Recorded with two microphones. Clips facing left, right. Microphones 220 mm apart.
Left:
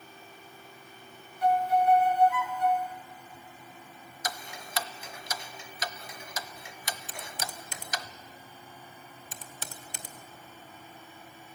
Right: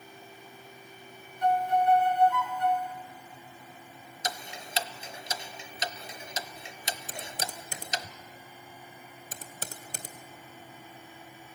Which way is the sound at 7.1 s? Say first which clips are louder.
Right 2 dB; 45° right (ahead or behind).